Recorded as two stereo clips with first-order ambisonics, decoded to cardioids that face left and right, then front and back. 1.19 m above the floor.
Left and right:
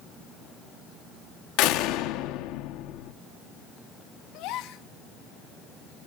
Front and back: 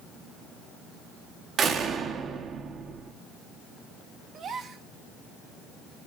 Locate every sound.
1.6 s a door slam: 115° left, 1.6 m
4.3 s a gasp: 120° left, 1.4 m